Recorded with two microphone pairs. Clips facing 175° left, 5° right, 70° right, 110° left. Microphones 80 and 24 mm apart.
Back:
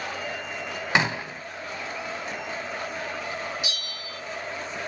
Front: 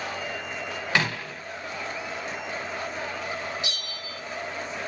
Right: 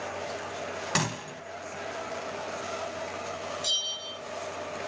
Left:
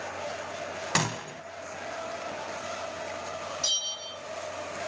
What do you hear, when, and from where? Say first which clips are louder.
0.9 s a gunshot: back 3 dB, left 2 dB; 175° right, 0.6 m
3.6 s a bell: even, even; 100° left, 3 m